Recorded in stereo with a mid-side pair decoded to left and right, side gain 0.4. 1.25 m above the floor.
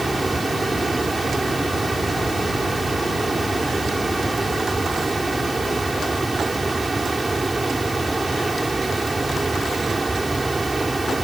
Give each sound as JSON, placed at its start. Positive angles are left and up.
{"t": 0.0, "sound": "a fan", "azimuth_deg": -25}